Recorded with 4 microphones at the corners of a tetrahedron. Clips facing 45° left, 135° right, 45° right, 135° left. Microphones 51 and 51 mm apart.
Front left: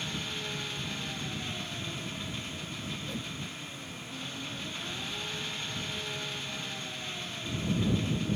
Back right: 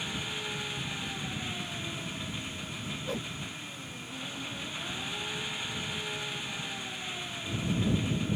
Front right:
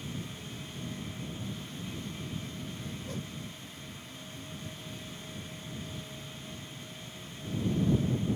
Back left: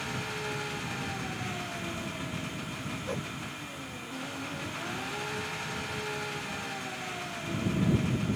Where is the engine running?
150° left.